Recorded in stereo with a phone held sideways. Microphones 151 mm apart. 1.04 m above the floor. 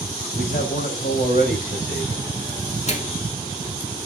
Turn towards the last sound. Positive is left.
turn(degrees=50)  # may be behind; listen again after turning